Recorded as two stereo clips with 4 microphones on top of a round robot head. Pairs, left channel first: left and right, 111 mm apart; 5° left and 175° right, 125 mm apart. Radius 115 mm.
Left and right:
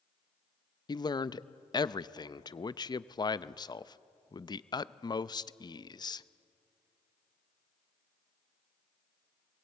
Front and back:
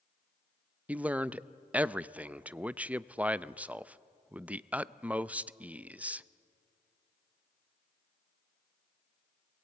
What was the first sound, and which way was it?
A man speaking, 110° left.